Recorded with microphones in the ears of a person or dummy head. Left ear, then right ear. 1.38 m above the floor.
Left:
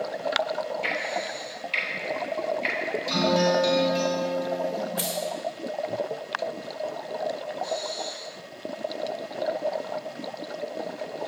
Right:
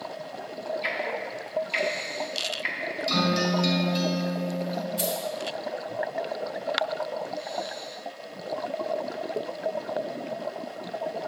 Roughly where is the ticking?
Centre.